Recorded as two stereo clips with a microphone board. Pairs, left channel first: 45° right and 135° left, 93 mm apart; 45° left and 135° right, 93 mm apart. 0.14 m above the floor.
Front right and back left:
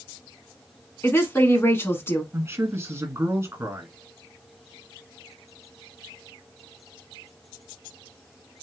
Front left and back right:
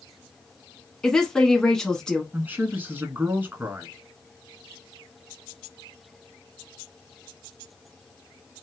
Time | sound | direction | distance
1.0 | a woman speaking | 25° right | 1.2 m
2.3 | a man speaking | 175° left | 1.6 m